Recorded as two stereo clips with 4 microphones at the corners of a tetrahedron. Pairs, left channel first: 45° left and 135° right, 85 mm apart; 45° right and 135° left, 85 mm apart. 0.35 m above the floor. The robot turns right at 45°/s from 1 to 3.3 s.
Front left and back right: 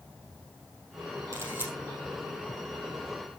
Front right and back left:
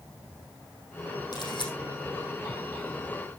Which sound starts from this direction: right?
A camera shutter, at 1.3 s.